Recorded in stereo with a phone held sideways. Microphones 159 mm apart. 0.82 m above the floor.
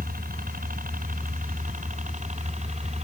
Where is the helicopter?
65° right (ahead or behind); by 3.0 s 45° right (ahead or behind).